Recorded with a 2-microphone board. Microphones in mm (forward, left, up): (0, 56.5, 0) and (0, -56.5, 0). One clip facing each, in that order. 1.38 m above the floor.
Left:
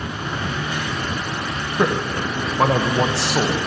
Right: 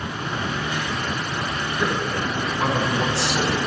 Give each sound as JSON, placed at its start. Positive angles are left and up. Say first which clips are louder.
{"t": 1.8, "sound": "a man speaking", "louder": "left 5 dB", "side_deg": 65, "distance_m": 1.2}